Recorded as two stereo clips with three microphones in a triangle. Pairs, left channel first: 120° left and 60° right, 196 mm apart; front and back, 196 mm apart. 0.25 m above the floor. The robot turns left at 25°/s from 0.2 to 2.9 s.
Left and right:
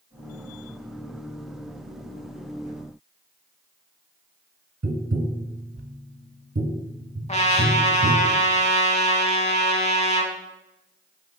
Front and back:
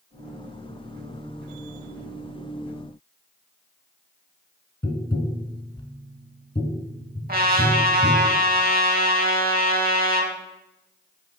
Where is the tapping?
65° right, 0.6 m.